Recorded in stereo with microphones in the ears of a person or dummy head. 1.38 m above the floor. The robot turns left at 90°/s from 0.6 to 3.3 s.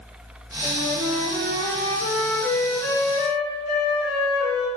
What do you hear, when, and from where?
0.6 s a flute: straight ahead, 1.8 m; by 4.7 s 115° left, 1.8 m